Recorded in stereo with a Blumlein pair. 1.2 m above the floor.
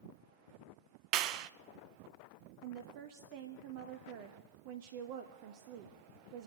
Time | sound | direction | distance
1.1 | a clap | 40° right | 0.6 m
2.6 | a woman speaking | 50° right | 1.1 m